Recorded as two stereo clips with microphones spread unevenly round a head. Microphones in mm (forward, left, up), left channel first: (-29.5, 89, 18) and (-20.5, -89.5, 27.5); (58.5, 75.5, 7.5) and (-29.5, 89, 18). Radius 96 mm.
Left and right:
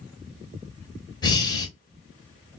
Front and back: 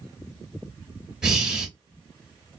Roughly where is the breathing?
Behind left.